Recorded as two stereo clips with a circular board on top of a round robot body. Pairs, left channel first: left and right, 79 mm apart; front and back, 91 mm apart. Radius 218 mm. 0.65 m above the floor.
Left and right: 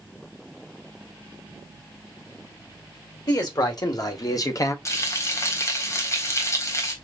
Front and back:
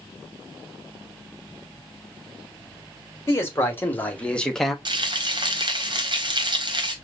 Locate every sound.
3.3 s a man speaking: 60° left, 2 m; by 4.8 s 90° left, 1.3 m
4.8 s frying: 140° left, 1.4 m